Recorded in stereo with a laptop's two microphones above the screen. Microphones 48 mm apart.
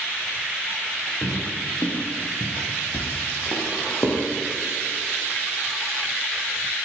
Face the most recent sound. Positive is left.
turn(degrees=70)  # may be behind; listen again after turning